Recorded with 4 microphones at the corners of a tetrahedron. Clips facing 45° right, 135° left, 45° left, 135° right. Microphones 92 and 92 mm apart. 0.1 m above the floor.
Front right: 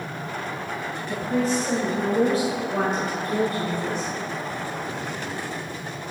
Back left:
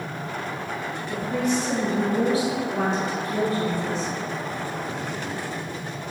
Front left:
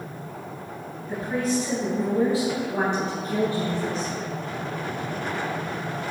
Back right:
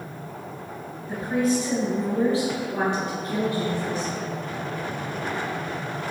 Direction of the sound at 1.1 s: 65° right.